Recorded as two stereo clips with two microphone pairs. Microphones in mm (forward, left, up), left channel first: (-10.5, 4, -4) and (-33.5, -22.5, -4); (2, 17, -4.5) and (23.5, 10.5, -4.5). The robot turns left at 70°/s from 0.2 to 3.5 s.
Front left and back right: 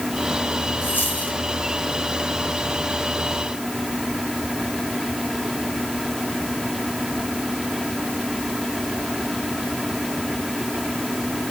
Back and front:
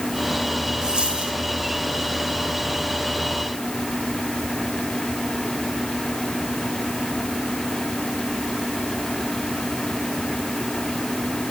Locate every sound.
0.8 s a dropped coin: 35° left, 3.5 m; by 1.4 s 5° right, 3.5 m